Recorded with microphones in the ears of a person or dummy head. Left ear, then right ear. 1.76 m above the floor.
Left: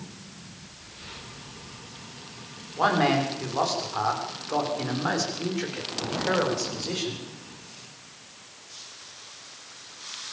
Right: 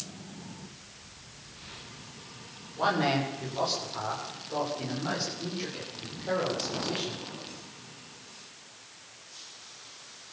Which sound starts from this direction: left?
A man speaking, at 2.8 s.